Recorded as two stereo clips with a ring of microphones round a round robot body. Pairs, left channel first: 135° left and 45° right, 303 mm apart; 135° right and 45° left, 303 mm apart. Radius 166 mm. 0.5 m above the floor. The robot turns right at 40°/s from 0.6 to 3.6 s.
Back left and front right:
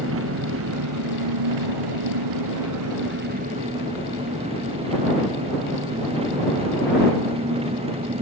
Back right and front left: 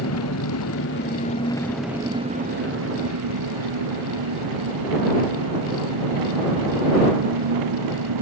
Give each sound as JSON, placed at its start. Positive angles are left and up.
{"t": 0.0, "sound": "an engine running", "azimuth_deg": -95}